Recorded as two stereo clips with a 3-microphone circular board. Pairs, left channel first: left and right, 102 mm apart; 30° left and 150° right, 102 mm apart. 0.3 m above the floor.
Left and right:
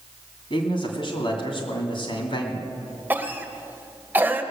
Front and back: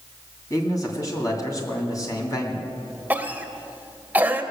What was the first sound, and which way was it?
A man speaking, 75° left.